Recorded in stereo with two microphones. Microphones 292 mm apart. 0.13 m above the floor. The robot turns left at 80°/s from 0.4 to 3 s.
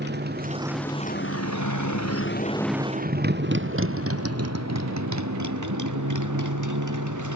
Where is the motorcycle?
35° right (ahead or behind); by 7.4 s 80° right.